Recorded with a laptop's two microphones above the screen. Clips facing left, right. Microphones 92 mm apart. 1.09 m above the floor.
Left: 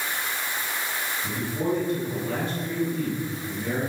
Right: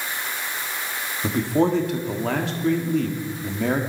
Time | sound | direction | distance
1.2 | a man speaking | 85° right | 1.8 m